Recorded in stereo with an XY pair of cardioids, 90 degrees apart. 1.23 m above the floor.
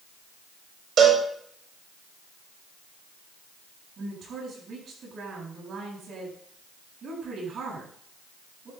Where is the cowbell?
65° right, 5 m.